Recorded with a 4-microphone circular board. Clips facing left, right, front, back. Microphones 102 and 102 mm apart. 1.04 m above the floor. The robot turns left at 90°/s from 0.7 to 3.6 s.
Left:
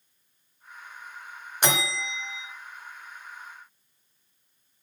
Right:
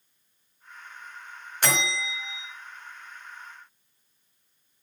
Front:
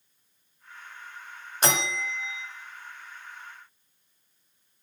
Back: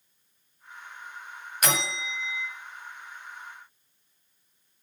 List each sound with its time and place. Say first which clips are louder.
1.6 s a bell: left 1 dB, front 2 dB; 35° left, 1.0 m; by 2.5 s 40° right, 1.0 m